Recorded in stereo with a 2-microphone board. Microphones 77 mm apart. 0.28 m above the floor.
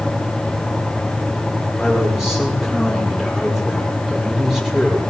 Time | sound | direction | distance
1.8 | a man speaking | 5° right (ahead or behind) | 9.5 m